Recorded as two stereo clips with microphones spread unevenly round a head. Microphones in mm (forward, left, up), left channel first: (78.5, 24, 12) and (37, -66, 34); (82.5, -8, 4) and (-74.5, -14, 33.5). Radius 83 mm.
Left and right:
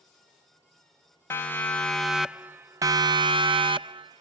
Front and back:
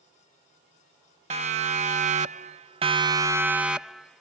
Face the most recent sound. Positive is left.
turn(degrees=-80)